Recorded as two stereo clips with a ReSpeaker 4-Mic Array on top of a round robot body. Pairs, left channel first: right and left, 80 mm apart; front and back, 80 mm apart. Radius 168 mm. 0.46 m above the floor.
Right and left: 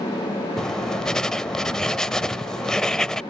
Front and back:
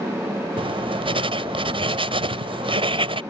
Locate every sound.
0.6 s writing: 170° right